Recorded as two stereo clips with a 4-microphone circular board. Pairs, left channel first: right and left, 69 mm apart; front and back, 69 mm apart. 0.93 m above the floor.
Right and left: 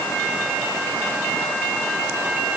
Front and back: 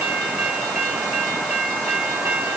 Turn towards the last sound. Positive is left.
No sound to turn to.